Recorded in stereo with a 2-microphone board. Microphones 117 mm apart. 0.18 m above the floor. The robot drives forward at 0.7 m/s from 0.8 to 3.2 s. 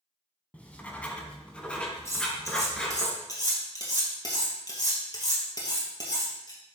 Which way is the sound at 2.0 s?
25° left (ahead or behind).